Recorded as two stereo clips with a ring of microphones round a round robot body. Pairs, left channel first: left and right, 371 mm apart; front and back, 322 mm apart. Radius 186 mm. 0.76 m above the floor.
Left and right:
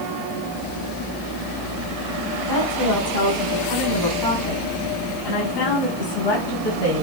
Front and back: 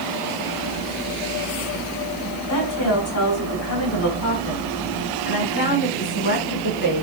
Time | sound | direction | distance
2.5 | a woman speaking | 40° left | 6 m